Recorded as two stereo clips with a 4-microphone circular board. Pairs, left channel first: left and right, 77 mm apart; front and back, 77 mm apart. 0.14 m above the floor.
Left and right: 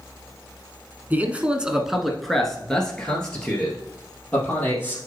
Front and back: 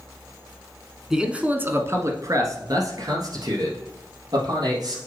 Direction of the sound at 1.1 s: 105° right.